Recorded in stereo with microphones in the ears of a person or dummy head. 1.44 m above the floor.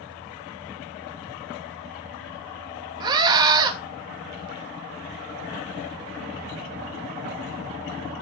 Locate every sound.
3.0 s a scream: 25° right (ahead or behind), 2.5 m